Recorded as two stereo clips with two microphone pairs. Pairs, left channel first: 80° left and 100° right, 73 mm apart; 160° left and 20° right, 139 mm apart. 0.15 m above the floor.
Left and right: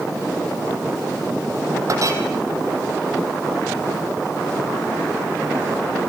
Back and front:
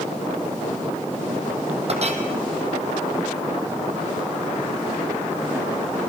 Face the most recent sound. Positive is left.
turn(degrees=-60)